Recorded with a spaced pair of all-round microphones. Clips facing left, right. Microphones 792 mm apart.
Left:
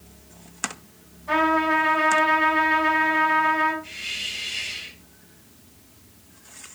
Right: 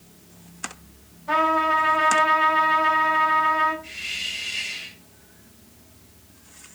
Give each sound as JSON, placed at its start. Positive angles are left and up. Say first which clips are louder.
{"t": 1.3, "sound": "a trumpet", "louder": "left 3 dB", "side_deg": 30, "distance_m": 6.5}
{"t": 3.8, "sound": "a hiss", "louder": "left 1 dB", "side_deg": 15, "distance_m": 6.0}